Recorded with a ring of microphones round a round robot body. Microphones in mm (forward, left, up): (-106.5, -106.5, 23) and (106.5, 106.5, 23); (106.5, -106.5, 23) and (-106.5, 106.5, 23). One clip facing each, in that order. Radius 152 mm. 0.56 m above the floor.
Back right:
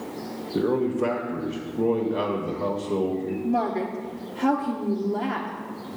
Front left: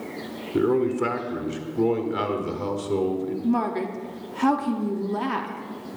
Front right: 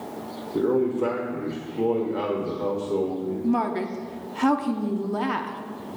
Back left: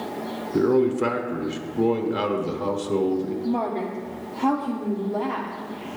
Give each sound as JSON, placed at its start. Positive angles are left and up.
{"t": 0.5, "sound": "a man speaking", "azimuth_deg": 90, "distance_m": 1.4}
{"t": 3.4, "sound": "a woman speaking", "azimuth_deg": -10, "distance_m": 0.8}